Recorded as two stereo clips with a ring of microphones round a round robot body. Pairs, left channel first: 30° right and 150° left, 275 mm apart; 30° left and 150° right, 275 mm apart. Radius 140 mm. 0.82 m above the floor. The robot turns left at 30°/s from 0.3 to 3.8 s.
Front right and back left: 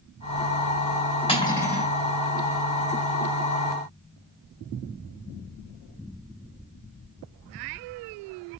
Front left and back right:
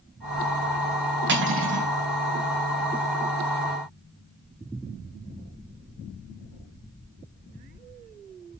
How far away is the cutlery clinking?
About 3.5 m.